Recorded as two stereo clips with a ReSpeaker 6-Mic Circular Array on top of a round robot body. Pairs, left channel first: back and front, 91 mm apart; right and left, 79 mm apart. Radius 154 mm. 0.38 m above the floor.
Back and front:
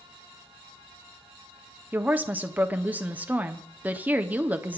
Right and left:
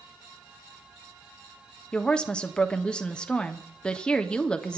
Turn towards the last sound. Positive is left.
turn(degrees=-35)